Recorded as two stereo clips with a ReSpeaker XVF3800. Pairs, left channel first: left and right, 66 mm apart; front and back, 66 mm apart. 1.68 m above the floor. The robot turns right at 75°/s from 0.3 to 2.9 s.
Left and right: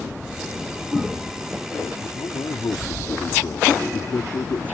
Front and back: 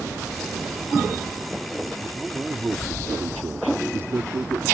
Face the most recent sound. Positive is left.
turn(degrees=130)